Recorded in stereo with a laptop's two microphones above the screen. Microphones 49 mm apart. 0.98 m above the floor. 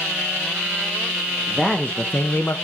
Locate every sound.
1.5 s a man speaking: 15° left (ahead or behind), 1.2 m; by 2.5 s 40° left (ahead or behind), 1.0 m